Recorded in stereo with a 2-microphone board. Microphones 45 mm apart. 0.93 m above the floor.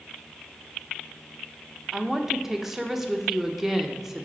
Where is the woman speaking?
10° right (ahead or behind), 0.6 m.